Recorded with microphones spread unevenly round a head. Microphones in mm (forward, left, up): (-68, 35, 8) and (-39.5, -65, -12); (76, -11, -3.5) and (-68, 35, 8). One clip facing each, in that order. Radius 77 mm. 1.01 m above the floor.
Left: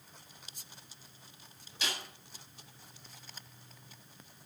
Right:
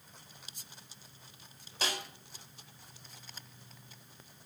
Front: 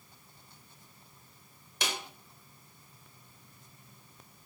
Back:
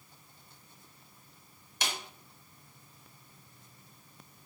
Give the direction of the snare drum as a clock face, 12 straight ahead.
12 o'clock.